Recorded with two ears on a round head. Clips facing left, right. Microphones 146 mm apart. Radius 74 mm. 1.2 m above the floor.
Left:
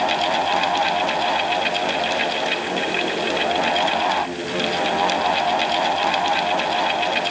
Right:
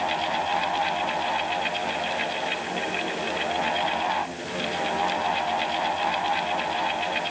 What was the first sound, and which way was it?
Only background noise.